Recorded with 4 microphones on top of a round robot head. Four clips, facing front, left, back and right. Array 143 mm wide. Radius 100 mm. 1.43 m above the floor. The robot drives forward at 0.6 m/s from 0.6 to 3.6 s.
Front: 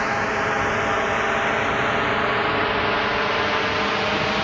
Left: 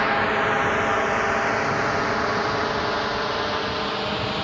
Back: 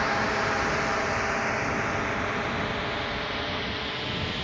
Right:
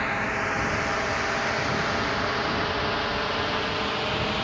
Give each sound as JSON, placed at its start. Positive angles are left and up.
{"t": 0.0, "sound": "a drone", "azimuth_deg": 70}